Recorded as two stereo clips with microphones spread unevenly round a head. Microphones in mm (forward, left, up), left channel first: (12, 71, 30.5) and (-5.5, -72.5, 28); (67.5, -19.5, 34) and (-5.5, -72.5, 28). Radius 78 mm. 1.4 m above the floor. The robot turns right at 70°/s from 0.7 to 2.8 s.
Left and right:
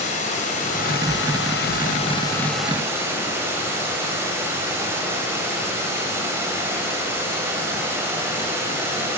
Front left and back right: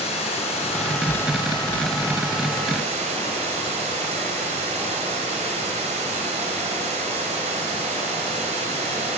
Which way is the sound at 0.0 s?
40° left.